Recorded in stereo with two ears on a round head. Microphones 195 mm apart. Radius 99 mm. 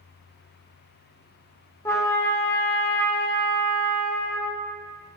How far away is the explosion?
I don't hear an explosion.